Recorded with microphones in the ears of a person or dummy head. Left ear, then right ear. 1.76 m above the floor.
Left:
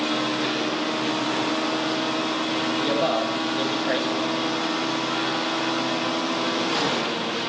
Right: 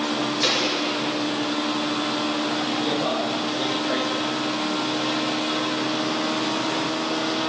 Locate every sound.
0.4 s a gunshot: 55° right (ahead or behind), 6 m
2.8 s a man speaking: 30° left (ahead or behind), 8.5 m